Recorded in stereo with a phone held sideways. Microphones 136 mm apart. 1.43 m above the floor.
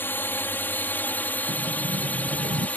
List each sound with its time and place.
0.0 s a drone: 15° left (ahead or behind); by 2.8 s 10° left (ahead or behind)
1.5 s a sliding door: 75° right (ahead or behind)